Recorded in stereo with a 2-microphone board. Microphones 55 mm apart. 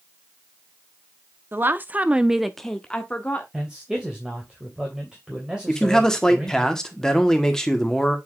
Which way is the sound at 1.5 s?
40° right (ahead or behind).